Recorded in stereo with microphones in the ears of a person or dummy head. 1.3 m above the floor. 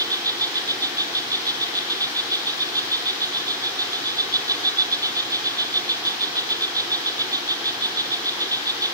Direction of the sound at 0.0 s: 15° right (ahead or behind).